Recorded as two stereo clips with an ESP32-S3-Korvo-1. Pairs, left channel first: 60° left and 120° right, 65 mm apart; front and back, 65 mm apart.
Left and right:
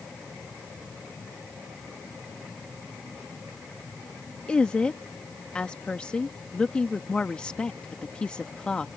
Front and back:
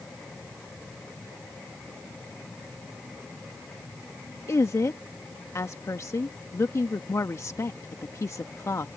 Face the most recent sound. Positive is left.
turn(degrees=-10)